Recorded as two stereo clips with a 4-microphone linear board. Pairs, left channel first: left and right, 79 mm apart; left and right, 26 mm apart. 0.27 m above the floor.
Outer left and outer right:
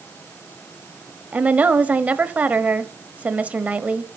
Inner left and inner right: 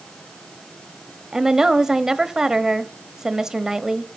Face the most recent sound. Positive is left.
turn(degrees=-20)  # may be behind; listen again after turning